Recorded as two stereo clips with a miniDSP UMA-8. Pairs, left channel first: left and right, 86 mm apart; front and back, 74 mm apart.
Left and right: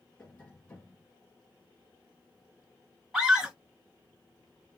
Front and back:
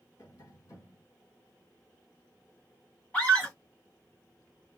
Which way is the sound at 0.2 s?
20° left.